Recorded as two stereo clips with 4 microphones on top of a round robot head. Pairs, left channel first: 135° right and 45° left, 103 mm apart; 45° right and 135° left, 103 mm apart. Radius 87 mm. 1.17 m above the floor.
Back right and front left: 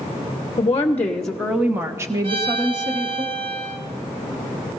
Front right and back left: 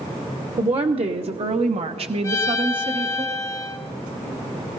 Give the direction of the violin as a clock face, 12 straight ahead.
12 o'clock.